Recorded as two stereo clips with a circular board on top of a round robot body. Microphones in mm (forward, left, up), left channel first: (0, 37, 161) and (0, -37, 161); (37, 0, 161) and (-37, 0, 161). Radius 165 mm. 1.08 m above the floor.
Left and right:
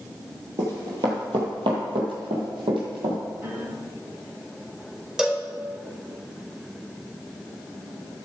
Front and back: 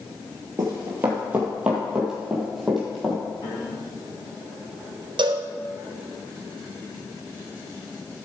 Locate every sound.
0.6 s running footsteps: 125° right, 1.5 m; by 3.2 s 90° right, 2.5 m
3.4 s a piano: 25° right, 4.5 m
5.2 s a cowbell: 170° right, 1.2 m